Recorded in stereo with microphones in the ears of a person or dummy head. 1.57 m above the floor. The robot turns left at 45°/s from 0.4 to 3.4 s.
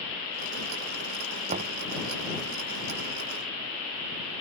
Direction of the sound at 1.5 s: 35° right (ahead or behind).